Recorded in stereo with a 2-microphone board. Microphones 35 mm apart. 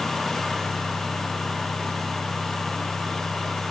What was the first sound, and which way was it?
Only background noise.